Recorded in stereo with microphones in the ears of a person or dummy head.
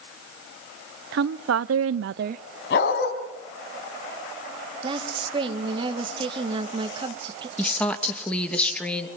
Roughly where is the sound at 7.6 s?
Centre.